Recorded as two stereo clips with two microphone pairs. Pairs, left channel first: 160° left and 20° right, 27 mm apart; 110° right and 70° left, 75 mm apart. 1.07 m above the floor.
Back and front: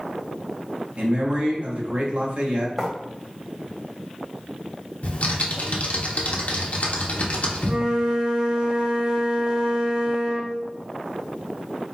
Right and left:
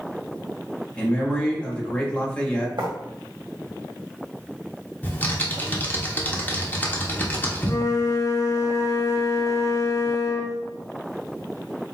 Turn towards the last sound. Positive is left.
turn(degrees=-70)